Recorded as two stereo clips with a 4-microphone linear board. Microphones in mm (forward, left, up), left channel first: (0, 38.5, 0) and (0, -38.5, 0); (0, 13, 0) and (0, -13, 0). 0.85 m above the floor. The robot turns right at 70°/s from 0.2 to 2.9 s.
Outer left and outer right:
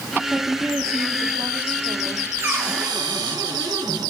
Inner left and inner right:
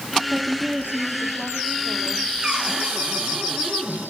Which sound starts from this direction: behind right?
A cupboard door, at 2.4 s.